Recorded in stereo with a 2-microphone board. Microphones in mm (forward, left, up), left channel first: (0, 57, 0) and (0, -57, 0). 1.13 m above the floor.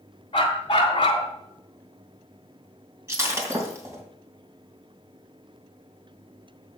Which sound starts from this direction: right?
Breaking glass, at 3.1 s.